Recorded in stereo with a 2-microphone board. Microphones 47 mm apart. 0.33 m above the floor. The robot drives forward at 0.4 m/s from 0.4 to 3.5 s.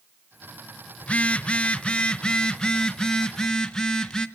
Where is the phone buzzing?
30° left (ahead or behind), 0.6 m; by 4.3 s 15° left (ahead or behind), 1.2 m.